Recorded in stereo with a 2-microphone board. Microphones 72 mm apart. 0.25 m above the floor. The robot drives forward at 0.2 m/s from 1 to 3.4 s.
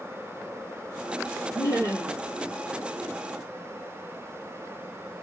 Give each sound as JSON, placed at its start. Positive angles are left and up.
{"t": 1.6, "sound": "laughter", "side_deg": 50, "distance_m": 3.5}